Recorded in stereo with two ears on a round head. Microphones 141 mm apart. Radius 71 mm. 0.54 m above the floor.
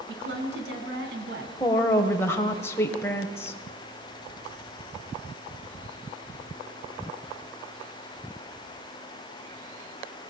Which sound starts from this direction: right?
A woman speaking, at 0.1 s.